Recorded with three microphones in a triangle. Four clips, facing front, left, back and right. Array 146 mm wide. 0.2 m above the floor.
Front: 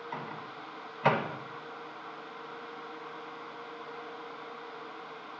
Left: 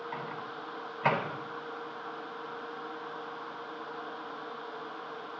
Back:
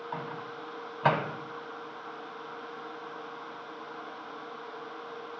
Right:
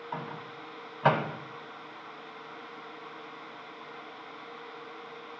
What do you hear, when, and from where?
0.1 s a microwave: 130° right, 1.1 m